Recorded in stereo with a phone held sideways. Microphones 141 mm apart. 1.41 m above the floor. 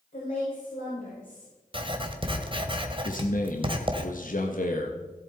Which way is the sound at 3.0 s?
75° left (ahead or behind).